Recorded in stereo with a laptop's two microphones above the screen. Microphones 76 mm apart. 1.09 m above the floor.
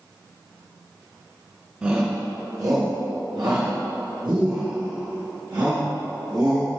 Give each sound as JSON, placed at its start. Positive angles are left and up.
{"t": 1.8, "sound": "a shout", "side_deg": -15, "distance_m": 0.8}